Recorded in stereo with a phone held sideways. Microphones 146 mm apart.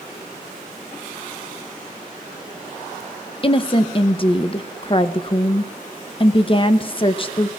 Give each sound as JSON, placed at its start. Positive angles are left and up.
{"t": 3.4, "sound": "a woman speaking", "side_deg": 35, "distance_m": 0.7}